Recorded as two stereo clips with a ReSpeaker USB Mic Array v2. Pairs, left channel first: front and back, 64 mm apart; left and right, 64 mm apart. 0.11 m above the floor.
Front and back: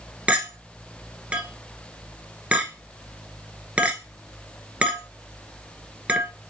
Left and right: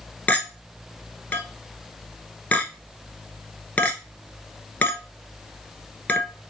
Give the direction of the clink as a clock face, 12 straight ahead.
8 o'clock.